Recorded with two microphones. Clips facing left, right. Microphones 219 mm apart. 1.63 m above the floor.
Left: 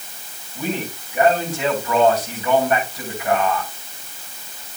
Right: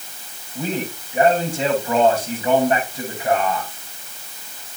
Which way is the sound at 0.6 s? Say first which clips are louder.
Right 1 dB; 30° right (ahead or behind).